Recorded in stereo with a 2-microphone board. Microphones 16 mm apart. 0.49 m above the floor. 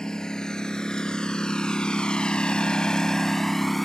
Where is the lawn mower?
50° left (ahead or behind); by 3.9 s 10° left (ahead or behind).